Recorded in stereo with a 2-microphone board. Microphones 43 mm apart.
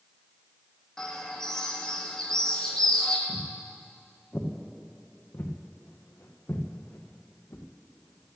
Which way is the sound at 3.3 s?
25° left (ahead or behind).